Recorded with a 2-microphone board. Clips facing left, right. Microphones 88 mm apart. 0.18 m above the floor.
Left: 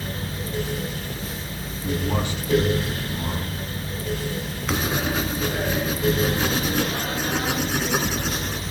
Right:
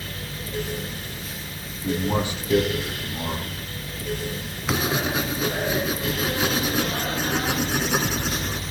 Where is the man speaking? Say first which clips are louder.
Right 2 dB; 10° right (ahead or behind), 4.5 m.